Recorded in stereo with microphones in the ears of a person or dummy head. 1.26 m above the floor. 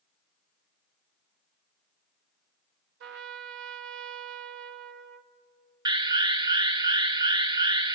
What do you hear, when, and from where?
3.0 s a trumpet: 65° right (ahead or behind), 1.3 m
5.8 s an alarm: 25° right (ahead or behind), 1.0 m